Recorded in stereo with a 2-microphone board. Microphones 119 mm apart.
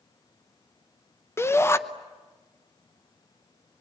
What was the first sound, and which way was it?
A shout, 20° left (ahead or behind).